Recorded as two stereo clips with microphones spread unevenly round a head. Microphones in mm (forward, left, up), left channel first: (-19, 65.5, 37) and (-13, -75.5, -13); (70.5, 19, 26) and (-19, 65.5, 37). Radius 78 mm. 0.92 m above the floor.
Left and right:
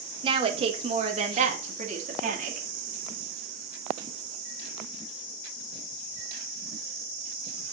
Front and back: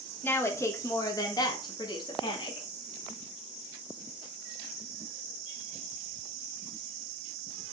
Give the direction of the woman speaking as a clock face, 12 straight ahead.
3 o'clock.